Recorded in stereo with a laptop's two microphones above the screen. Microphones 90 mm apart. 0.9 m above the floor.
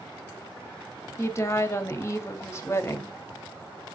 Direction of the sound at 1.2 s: 30° left (ahead or behind).